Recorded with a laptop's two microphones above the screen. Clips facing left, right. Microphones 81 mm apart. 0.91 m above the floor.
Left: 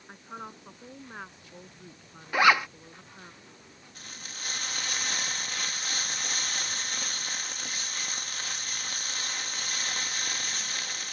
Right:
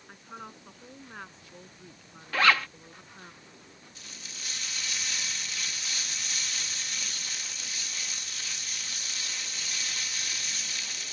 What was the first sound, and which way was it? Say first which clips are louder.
A woman speaking: left 2 dB; 15° left (ahead or behind).